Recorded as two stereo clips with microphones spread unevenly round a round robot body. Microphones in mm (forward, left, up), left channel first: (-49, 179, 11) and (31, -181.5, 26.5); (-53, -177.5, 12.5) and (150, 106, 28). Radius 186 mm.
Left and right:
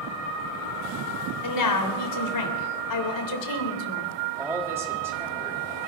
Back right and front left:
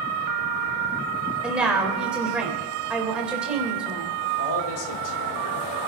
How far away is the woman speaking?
About 3 m.